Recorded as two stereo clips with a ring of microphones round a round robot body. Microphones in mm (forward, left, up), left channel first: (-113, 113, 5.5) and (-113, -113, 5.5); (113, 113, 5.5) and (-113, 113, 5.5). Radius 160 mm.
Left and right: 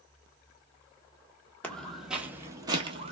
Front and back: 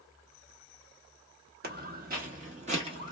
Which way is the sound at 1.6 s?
170° left.